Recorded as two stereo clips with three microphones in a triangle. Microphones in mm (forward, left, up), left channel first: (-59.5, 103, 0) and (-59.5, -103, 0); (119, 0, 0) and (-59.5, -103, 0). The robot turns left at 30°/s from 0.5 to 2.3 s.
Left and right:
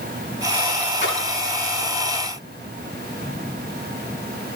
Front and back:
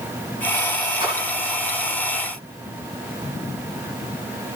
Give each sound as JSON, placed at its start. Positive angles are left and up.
{"t": 1.0, "sound": "a splash", "azimuth_deg": 145, "distance_m": 6.0}